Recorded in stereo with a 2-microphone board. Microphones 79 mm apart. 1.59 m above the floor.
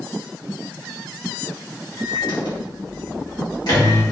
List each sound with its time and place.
2.0 s a microwave: 60° left (ahead or behind), 1.3 m